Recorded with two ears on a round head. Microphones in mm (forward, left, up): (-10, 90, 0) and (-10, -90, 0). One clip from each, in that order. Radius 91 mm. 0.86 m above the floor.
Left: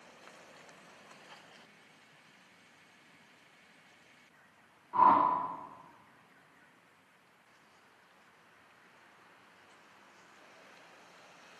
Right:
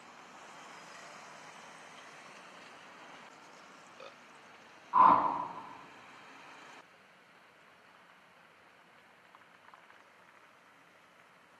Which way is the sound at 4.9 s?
60° right (ahead or behind).